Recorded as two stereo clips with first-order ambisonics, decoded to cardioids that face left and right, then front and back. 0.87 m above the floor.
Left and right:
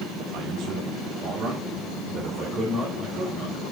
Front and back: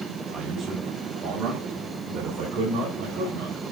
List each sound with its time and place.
0.3 s a man speaking: 115° right, 0.7 m; by 3.6 s 165° right, 4 m